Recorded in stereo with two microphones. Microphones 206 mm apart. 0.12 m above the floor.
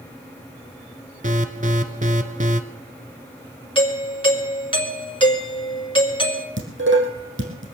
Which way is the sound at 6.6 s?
70° right (ahead or behind).